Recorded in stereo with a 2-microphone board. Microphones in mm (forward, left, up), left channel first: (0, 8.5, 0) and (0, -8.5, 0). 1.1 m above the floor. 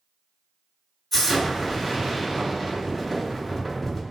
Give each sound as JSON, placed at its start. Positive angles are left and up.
{"t": 1.1, "sound": "an explosion", "side_deg": 5, "distance_m": 1.5}